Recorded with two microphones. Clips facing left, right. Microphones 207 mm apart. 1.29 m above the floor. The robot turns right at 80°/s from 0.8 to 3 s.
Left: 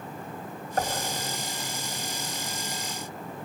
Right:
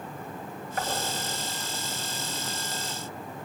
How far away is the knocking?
About 4 m.